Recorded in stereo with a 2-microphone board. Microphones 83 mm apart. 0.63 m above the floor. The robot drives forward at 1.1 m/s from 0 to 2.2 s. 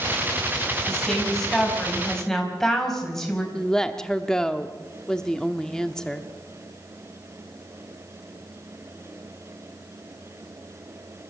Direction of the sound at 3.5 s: 10° left (ahead or behind).